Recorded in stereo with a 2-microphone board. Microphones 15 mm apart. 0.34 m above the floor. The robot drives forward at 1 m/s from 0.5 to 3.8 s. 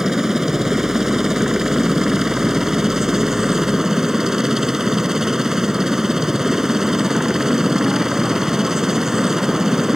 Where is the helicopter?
30° right (ahead or behind).